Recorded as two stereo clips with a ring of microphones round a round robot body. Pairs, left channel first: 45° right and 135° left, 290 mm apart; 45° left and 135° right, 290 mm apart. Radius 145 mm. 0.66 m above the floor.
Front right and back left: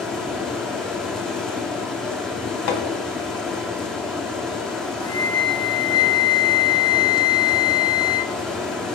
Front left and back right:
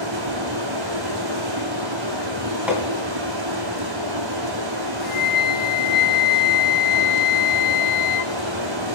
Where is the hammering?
50° right, 2.5 m.